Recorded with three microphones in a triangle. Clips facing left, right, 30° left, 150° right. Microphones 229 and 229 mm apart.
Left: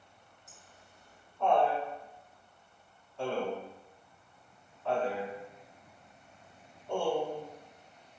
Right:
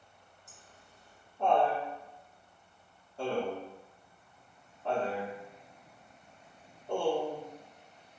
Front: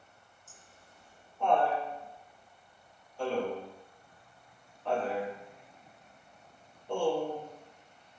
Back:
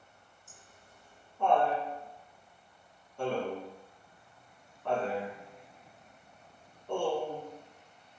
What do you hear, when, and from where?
0.5 s laughter: 140° right, 1.6 m